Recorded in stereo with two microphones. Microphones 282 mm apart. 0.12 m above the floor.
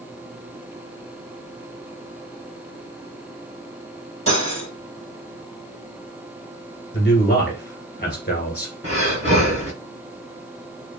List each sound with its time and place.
4.3 s cutlery clinking: 60° right (ahead or behind), 1.7 m
6.9 s a man speaking: 35° left (ahead or behind), 1.6 m
8.8 s breathing: 50° right (ahead or behind), 1.6 m